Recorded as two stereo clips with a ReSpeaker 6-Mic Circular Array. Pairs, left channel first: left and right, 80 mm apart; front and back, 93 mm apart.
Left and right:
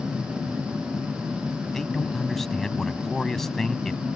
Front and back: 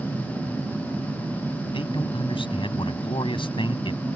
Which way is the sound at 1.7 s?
5° left.